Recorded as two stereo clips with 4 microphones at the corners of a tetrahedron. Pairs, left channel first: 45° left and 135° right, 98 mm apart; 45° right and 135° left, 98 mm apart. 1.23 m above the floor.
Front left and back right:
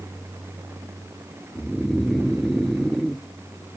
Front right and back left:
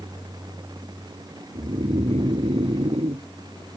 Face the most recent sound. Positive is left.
turn(degrees=135)